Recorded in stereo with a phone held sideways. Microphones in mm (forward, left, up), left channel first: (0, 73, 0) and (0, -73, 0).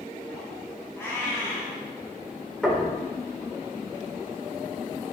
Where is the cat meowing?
15° left (ahead or behind), 4.5 m.